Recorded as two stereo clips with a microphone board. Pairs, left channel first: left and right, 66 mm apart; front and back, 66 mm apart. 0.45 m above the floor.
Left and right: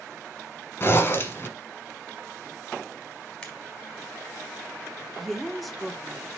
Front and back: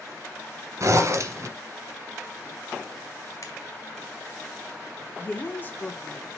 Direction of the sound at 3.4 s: 20° left.